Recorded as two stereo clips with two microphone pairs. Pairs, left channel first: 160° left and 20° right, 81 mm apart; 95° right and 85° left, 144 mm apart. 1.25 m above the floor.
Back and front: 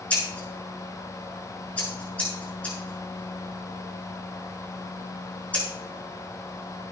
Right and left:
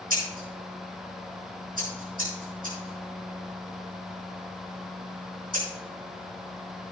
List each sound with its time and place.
0.1 s scissors: 85° left, 6 m